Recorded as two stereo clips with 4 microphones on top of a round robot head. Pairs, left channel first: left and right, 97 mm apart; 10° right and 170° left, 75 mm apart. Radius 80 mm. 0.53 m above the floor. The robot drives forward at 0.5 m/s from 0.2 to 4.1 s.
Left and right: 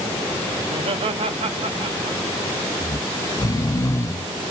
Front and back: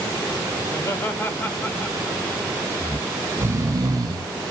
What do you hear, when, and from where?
0.6 s laughter: 70° right, 2 m; by 2.2 s 95° right, 1.9 m
2.8 s snoring: 100° left, 0.7 m; by 4.5 s 145° left, 1.0 m